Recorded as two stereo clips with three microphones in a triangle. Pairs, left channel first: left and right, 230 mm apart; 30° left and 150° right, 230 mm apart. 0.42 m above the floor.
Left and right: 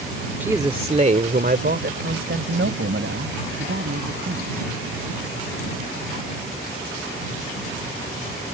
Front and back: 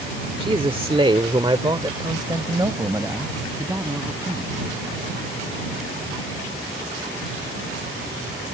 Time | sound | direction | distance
0.4 | a man speaking | 160° right | ?